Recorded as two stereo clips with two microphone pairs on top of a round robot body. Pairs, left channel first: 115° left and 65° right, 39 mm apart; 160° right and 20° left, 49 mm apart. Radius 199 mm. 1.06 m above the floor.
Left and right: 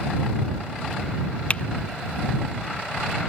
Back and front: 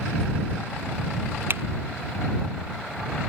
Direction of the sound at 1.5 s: 60° left.